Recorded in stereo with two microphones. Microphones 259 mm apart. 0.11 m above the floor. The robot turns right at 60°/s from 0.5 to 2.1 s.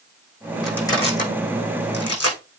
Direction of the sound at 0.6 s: Centre (ahead or behind).